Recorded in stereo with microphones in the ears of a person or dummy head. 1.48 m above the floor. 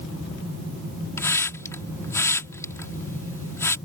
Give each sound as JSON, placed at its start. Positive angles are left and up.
{"t": 1.2, "sound": "a hiss", "side_deg": 10}